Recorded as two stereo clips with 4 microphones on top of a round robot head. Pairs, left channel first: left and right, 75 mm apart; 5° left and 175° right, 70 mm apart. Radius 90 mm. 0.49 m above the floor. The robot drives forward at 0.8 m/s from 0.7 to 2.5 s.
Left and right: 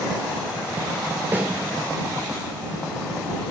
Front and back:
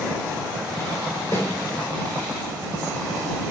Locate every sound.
1.3 s a snare drum: 25° right, 2.5 m